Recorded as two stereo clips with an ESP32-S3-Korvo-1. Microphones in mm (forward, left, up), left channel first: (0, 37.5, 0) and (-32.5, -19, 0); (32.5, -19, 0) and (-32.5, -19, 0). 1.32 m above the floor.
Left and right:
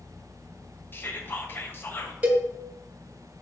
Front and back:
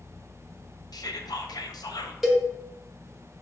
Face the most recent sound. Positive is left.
turn(degrees=-90)